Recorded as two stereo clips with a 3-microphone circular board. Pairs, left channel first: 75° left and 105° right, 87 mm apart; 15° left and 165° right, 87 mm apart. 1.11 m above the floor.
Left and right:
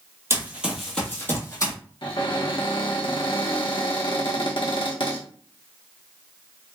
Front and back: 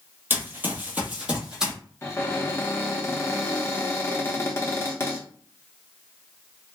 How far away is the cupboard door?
About 0.9 m.